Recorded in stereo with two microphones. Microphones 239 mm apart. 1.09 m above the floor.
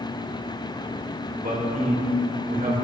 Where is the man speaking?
35° right (ahead or behind), 3.5 m.